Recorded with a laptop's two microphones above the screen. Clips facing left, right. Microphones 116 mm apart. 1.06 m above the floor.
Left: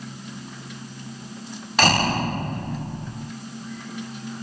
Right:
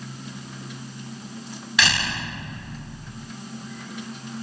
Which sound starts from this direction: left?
A door slam, at 1.8 s.